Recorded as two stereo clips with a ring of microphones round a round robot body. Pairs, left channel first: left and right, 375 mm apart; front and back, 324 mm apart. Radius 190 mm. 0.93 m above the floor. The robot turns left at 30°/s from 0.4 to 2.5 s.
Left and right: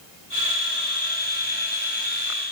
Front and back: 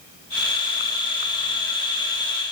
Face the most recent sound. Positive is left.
No sound to turn to.